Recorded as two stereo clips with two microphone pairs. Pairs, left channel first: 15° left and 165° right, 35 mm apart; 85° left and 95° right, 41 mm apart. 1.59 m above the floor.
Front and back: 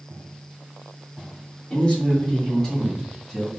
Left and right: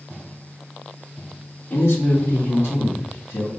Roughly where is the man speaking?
Ahead left.